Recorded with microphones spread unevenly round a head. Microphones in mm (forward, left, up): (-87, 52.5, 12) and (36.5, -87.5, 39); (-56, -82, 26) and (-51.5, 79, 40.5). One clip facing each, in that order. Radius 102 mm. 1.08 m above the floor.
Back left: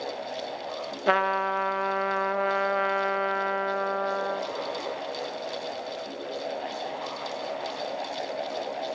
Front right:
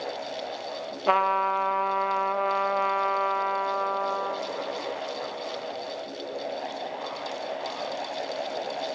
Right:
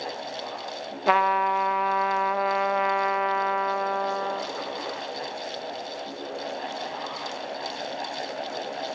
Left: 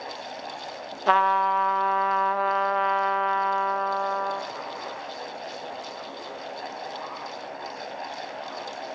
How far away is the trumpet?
About 0.5 m.